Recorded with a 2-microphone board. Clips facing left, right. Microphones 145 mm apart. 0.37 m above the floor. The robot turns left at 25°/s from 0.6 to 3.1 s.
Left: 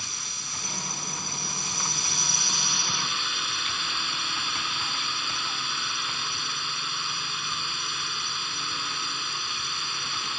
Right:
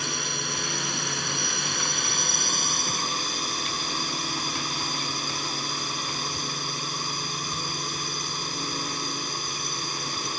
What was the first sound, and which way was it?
A drone, 75° right.